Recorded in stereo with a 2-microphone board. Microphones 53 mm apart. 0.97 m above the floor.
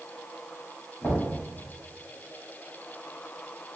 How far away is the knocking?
About 1.8 m.